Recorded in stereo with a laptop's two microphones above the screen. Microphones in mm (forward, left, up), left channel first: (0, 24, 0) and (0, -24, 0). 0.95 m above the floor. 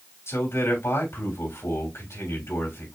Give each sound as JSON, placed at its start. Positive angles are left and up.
{"t": 0.3, "sound": "a man speaking", "side_deg": 70, "distance_m": 3.5}